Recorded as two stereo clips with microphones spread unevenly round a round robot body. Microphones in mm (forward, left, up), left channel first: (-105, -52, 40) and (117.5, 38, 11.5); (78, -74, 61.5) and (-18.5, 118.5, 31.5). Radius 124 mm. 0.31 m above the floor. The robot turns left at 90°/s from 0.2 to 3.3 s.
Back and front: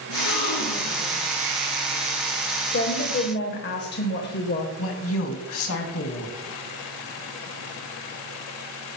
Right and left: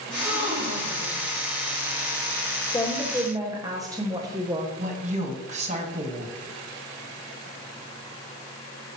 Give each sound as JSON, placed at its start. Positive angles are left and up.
{"t": 0.1, "sound": "a gasp", "azimuth_deg": -155, "distance_m": 4.0}
{"t": 2.7, "sound": "a woman speaking", "azimuth_deg": -135, "distance_m": 1.2}
{"t": 4.8, "sound": "a woman speaking", "azimuth_deg": 170, "distance_m": 2.0}